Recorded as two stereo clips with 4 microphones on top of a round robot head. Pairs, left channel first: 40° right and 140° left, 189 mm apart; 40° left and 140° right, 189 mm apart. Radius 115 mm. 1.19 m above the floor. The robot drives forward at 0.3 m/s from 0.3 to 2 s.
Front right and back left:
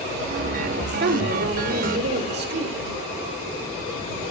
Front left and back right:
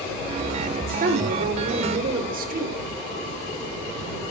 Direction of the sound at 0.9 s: 175° left.